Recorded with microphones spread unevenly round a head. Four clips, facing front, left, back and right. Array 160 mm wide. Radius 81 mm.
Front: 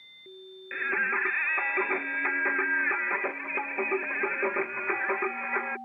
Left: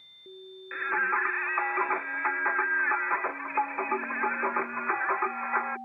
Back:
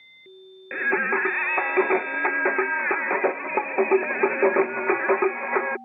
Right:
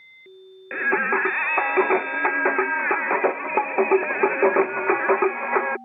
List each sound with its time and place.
0.7 s singing: 120° right